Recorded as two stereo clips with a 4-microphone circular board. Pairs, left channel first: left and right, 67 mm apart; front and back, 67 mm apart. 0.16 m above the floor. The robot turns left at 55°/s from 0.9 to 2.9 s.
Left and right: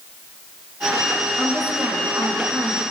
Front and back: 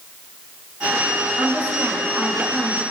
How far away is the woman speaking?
About 7.5 m.